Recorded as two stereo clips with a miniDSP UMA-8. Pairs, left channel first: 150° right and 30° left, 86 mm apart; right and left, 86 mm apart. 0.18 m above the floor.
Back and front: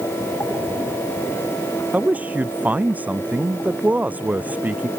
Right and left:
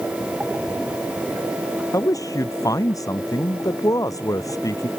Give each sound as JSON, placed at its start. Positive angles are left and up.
{"t": 1.9, "sound": "a man speaking", "azimuth_deg": -40}